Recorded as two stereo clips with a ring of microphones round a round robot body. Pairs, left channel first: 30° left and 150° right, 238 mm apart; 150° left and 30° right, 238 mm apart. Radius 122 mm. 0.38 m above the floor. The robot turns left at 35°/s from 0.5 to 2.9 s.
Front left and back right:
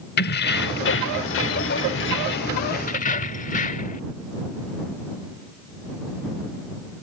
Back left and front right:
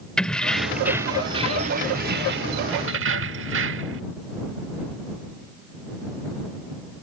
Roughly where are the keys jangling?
Ahead left.